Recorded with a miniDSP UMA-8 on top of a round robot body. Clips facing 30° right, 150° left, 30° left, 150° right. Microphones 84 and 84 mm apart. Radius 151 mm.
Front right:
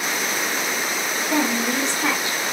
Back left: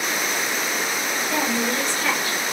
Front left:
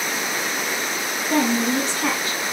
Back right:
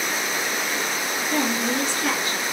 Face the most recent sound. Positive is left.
turn(degrees=35)